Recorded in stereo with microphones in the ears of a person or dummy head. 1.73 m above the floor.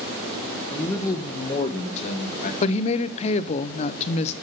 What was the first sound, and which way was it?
A man speaking, 5° left (ahead or behind).